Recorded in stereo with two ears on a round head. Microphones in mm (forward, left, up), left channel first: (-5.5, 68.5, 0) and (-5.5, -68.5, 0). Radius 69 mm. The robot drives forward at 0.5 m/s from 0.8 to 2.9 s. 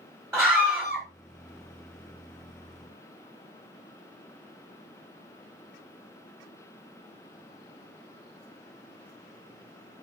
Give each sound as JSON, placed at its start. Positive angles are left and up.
{"t": 0.3, "sound": "a scream", "side_deg": 5, "distance_m": 1.9}